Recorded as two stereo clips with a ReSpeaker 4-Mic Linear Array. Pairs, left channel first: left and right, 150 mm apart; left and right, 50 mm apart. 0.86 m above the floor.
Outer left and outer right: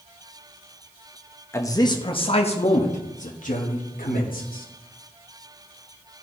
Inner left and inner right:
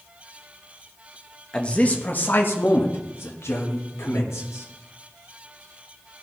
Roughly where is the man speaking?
Centre.